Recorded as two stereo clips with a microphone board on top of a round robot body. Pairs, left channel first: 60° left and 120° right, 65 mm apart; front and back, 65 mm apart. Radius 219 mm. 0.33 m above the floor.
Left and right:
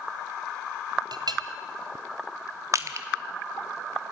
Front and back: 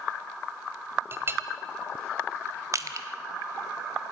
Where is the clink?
125° right, 1.8 m.